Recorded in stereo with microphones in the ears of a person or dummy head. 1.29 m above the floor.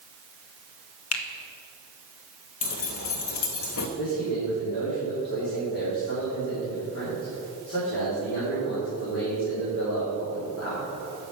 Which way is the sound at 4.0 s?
65° left (ahead or behind).